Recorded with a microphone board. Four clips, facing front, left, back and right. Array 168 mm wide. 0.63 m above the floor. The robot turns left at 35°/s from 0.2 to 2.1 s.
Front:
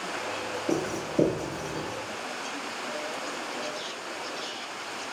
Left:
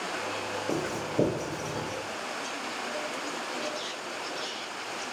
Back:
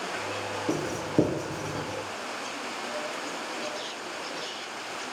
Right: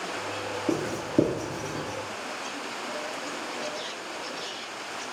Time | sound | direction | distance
0.7 | writing | 115° right | 2.5 m